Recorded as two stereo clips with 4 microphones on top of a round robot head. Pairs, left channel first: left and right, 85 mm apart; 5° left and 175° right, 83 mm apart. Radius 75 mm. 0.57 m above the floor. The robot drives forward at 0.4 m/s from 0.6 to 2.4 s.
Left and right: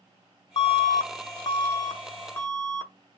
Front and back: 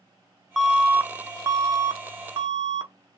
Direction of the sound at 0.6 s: 95° left.